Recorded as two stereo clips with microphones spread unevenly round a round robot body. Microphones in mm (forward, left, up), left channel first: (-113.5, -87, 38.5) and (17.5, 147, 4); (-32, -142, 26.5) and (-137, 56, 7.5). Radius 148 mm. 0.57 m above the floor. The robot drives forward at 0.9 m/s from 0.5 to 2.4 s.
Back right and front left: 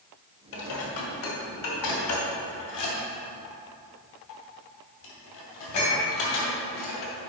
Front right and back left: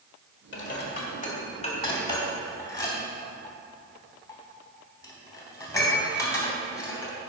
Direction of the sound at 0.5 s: 100° right.